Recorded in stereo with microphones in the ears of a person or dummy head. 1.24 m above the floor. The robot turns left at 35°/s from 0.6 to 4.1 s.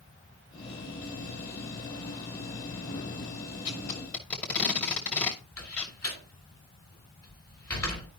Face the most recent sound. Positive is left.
turn(degrees=0)  # may be behind; listen again after turning